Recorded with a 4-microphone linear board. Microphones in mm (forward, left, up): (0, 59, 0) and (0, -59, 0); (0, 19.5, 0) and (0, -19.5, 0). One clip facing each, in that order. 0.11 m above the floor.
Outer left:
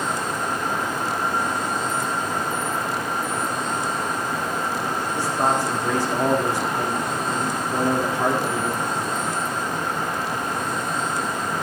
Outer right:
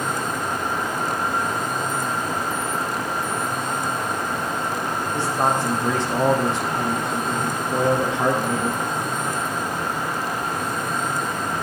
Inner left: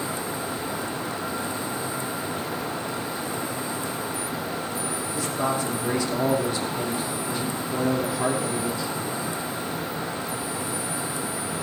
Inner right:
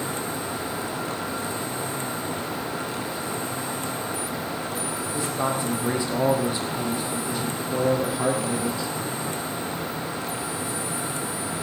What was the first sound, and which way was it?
A man speaking, 20° right (ahead or behind).